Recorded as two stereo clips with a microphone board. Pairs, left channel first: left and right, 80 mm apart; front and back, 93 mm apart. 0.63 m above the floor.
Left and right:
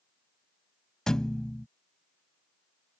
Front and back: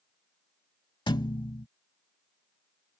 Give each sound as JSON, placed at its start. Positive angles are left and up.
{"t": 1.1, "sound": "a thud", "azimuth_deg": 10}